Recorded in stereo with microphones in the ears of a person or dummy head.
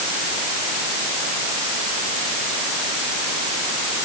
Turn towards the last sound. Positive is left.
No sound to turn to.